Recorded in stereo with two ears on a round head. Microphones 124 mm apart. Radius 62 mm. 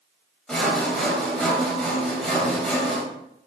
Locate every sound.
0.5 s sawing: 5° left (ahead or behind), 3.5 m